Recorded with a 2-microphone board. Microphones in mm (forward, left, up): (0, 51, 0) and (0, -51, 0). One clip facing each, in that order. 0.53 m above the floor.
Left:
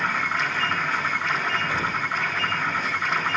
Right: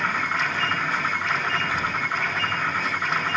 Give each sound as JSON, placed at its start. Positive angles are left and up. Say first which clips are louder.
{"t": 1.7, "sound": "an explosion", "louder": "even", "side_deg": 35, "distance_m": 1.5}